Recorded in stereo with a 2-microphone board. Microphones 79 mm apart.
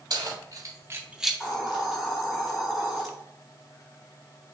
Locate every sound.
0.1 s keys jangling: 60° right (ahead or behind), 1.2 m; by 1.4 s 10° left (ahead or behind), 0.5 m
1.4 s a hiss: 5° right (ahead or behind), 1.5 m